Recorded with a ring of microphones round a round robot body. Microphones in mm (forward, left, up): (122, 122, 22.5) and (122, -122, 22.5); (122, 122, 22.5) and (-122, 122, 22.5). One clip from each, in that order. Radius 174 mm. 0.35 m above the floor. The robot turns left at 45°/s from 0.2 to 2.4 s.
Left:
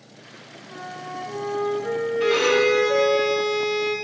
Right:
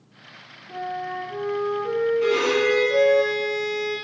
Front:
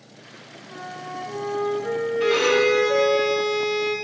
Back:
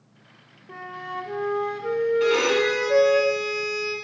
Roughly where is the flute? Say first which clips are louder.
Right 5 dB, back 1 dB; behind.